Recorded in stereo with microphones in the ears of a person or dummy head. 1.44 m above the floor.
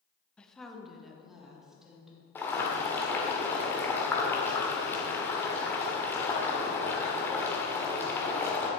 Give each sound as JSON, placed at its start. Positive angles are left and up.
{"t": 0.4, "sound": "a woman speaking", "side_deg": 5, "distance_m": 0.7}
{"t": 2.4, "sound": "boiling", "side_deg": 10, "distance_m": 1.7}